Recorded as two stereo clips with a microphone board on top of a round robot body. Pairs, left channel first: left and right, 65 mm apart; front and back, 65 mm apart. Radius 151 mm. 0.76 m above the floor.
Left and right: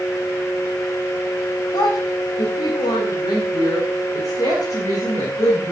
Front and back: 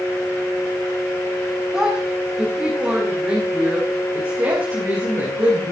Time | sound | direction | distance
1.7 | a woman speaking | 105° left | 5 m